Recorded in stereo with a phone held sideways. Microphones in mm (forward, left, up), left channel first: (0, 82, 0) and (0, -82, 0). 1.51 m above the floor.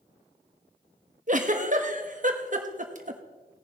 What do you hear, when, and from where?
1.3 s a giggle: 50° right (ahead or behind), 1.1 m